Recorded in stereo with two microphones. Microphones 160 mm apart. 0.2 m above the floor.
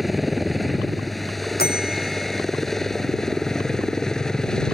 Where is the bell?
85° left.